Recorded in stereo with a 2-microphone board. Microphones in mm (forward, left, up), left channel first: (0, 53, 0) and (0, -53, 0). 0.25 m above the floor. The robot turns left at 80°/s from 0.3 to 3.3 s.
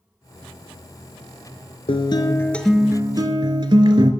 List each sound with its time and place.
1.9 s a guitar: 65° left, 0.6 m; by 4.1 s 50° right, 0.6 m